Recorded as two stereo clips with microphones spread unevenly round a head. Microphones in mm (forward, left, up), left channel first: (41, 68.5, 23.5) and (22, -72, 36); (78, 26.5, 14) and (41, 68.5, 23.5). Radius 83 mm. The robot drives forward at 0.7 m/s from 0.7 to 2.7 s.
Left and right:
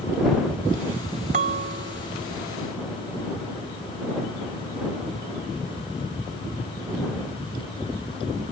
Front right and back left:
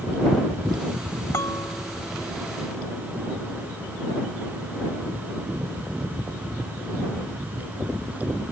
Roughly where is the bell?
Right.